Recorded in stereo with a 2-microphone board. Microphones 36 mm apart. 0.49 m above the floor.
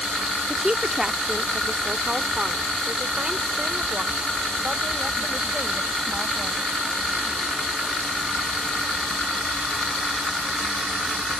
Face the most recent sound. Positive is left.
turn(degrees=-30)  # may be behind; listen again after turning